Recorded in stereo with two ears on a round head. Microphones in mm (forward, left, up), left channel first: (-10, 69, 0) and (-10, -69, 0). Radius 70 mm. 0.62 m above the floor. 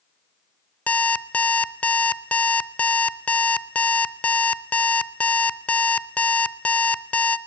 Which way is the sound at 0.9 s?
10° left (ahead or behind).